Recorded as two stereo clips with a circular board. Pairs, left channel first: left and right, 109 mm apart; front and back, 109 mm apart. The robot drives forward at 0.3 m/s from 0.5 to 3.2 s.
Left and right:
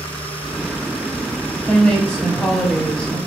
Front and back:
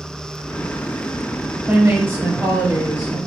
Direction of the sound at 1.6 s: 145° left.